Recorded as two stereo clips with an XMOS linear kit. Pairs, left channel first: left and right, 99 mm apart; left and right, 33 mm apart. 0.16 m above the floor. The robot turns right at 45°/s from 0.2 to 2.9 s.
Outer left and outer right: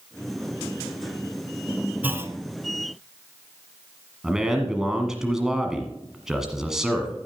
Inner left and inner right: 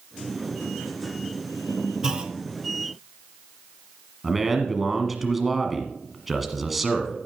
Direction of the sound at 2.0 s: 15° right (ahead or behind).